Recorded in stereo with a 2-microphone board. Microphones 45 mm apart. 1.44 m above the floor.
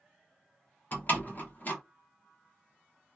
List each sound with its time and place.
0.9 s a door slam: 45° left (ahead or behind), 1.2 m